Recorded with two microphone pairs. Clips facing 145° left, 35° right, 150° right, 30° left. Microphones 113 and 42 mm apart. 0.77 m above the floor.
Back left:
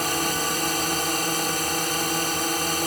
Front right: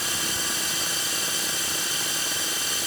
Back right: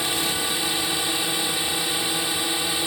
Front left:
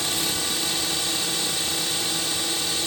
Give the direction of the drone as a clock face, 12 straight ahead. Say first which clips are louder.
Back left 8 dB, back right 2 dB; 7 o'clock.